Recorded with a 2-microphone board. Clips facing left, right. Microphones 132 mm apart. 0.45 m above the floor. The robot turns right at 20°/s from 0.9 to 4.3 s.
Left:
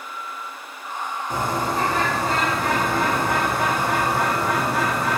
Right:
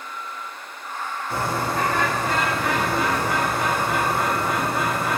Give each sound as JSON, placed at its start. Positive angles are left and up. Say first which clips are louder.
{"t": 1.3, "sound": "a bird", "louder": "left 1 dB", "azimuth_deg": 15, "distance_m": 0.7}